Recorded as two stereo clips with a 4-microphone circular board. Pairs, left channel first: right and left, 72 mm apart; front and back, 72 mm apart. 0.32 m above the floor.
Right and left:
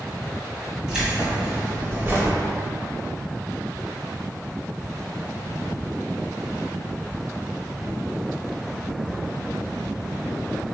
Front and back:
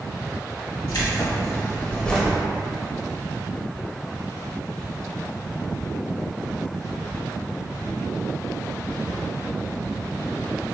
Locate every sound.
0.9 s keys jangling: 15° left, 1.3 m; by 2.4 s 100° left, 0.7 m